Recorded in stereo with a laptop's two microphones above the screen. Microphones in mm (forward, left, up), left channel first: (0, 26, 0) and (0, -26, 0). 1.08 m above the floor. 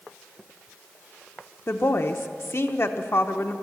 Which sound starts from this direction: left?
A woman speaking, at 1.7 s.